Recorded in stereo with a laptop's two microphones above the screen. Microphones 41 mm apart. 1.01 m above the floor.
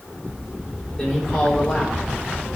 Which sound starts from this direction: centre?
A man speaking, at 1.0 s.